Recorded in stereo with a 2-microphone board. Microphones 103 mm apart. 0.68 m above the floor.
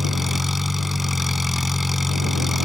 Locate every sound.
0.0 s an engine running: centre (ahead or behind)